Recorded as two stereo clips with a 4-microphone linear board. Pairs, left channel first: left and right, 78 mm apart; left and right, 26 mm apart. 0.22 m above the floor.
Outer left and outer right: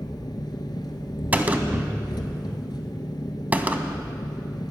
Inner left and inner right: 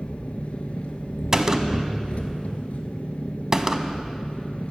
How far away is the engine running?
About 1.1 m.